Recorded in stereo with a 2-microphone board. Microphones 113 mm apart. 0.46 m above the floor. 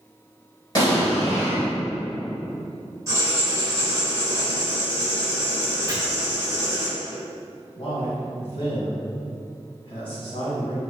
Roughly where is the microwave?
I don't hear a microwave.